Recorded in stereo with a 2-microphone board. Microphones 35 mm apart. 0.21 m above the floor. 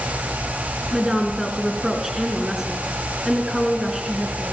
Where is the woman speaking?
15° right (ahead or behind), 3 m.